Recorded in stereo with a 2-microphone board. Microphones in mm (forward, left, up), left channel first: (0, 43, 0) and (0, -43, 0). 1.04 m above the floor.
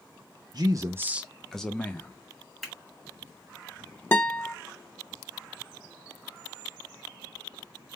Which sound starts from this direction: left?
A guitar, at 4.1 s.